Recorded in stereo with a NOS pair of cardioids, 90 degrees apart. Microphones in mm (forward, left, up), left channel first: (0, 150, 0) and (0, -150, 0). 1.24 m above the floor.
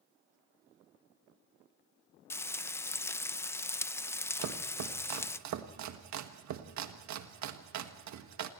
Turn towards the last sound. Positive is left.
turn(degrees=-65)